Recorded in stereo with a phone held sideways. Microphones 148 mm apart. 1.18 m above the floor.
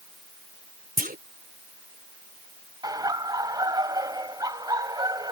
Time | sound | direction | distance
1.0 | a clunk | 85° right | ?
2.8 | laughter | 25° right (ahead or behind) | ?